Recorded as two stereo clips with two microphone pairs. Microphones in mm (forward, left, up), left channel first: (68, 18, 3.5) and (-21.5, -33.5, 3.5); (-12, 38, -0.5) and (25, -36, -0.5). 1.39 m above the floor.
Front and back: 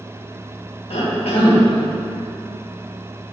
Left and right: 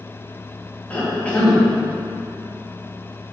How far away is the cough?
About 2.5 m.